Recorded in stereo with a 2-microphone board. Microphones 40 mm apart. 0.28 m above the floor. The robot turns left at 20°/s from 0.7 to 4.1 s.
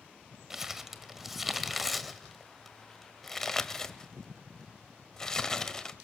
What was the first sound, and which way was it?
Crumpling, 10° right (ahead or behind).